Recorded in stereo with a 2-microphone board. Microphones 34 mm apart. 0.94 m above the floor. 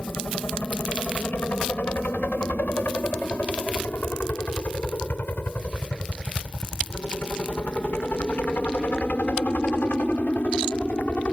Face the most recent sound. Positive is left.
turn(degrees=60)  # may be behind; listen again after turning